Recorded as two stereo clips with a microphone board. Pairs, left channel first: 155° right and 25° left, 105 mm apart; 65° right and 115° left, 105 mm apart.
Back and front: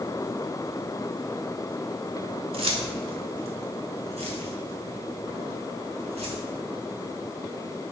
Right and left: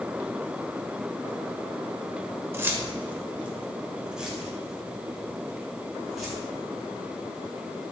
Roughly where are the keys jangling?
Ahead left.